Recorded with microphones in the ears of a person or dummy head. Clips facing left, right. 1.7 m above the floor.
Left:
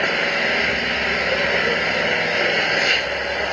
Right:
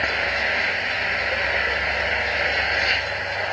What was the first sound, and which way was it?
An engine running, 45° left (ahead or behind).